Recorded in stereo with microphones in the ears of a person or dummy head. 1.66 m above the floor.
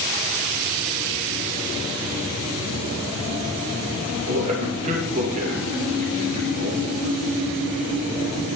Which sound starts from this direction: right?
A man speaking, at 4.3 s.